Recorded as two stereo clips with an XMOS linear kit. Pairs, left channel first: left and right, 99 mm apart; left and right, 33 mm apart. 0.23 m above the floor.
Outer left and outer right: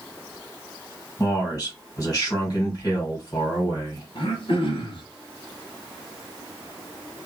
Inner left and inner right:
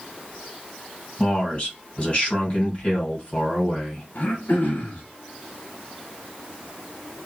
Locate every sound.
1.2 s a man speaking: 40° left (ahead or behind), 2 m
4.2 s throat clearing: 60° left (ahead or behind), 1.2 m